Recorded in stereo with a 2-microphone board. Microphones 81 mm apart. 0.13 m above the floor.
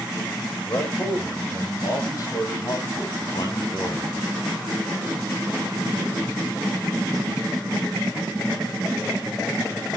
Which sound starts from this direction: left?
A man speaking, at 0.7 s.